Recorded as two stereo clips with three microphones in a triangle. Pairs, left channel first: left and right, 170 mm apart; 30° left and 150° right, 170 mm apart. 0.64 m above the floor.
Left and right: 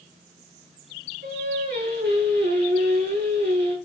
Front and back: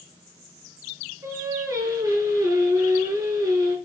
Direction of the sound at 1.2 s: 80° right.